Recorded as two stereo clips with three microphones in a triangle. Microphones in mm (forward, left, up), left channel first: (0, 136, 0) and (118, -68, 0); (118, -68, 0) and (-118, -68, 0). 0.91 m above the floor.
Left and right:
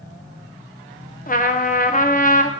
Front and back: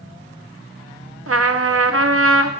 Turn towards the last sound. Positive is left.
turn(degrees=170)